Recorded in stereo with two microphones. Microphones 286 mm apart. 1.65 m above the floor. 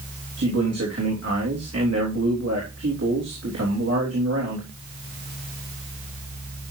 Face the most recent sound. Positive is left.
turn(degrees=-60)  # may be behind; listen again after turning